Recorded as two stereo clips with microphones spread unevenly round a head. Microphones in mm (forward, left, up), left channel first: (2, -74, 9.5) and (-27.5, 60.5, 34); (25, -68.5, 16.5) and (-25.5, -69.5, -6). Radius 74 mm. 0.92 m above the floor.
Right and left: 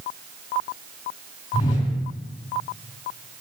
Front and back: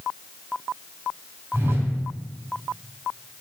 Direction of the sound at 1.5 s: 130° right.